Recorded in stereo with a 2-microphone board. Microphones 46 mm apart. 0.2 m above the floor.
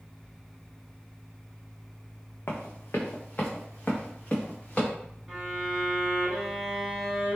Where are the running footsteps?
75° left (ahead or behind), 0.9 m; by 4.9 s 30° left (ahead or behind), 1.7 m.